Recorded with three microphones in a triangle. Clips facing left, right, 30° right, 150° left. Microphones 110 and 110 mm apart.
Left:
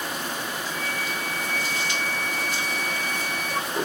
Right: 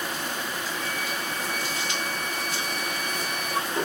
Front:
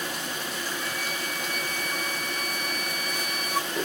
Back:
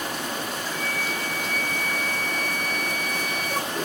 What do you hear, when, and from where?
0.7 s a flute: 65° right, 0.5 m